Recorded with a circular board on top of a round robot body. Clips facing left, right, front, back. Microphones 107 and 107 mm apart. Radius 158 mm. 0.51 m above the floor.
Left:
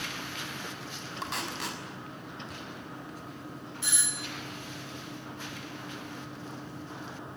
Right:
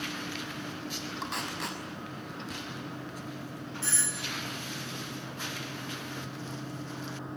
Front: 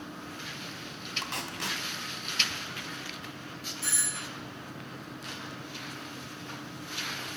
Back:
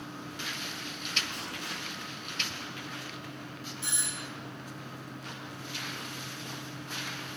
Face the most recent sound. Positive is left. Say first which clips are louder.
# even, front 2 dB
turn(degrees=140)